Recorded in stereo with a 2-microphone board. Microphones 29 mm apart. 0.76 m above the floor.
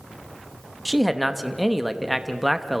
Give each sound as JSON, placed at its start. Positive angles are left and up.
{"t": 0.8, "sound": "a man speaking", "side_deg": -5, "distance_m": 1.0}